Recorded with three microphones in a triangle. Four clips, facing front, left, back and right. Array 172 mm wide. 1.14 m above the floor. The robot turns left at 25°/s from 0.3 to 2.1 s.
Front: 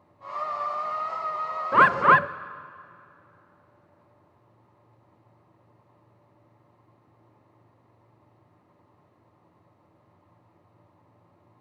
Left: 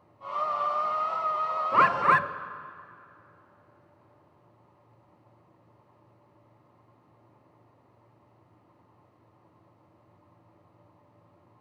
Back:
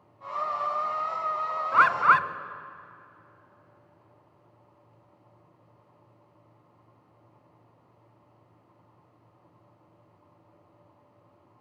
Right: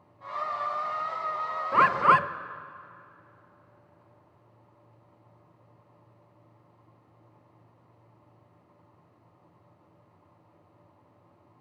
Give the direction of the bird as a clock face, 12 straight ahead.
12 o'clock.